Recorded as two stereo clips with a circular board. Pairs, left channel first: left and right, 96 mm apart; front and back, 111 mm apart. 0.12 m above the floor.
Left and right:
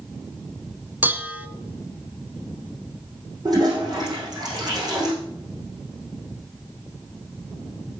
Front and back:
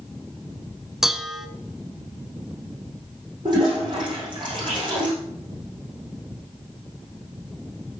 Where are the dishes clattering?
100° right, 0.8 m.